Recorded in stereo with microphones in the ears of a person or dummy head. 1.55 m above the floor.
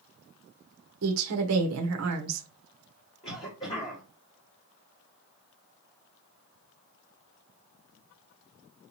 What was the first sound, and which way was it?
A woman speaking, 65° right (ahead or behind).